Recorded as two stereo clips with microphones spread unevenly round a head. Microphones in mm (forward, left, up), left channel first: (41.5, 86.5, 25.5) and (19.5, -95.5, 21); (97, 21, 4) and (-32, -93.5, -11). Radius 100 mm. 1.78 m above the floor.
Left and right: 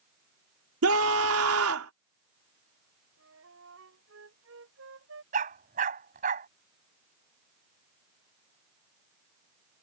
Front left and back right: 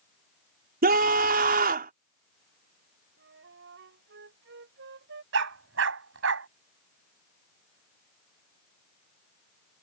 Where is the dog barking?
150° right.